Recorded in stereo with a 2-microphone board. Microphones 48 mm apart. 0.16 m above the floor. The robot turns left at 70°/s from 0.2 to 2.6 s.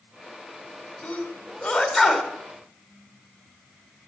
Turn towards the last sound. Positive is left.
turn(degrees=-15)